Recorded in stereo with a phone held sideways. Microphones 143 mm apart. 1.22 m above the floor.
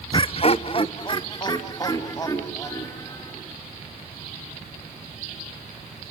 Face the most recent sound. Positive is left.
turn(degrees=20)  # may be behind; listen again after turning